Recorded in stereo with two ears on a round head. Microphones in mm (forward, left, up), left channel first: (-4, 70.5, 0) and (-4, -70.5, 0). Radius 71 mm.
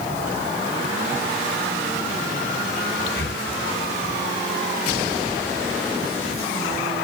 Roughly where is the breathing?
Left.